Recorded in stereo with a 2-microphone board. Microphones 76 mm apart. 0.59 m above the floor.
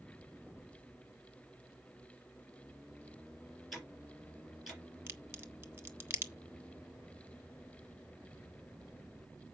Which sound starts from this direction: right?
A crack, at 5.1 s.